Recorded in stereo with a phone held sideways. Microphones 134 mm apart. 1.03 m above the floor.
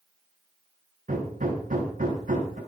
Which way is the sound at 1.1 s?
65° right (ahead or behind).